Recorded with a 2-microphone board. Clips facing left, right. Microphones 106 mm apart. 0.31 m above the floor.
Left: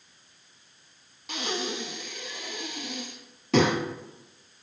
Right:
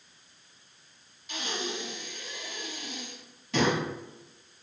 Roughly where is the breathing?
Left.